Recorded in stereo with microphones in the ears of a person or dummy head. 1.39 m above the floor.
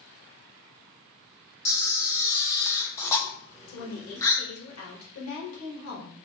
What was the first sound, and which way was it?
A camera shutter, 10° left (ahead or behind).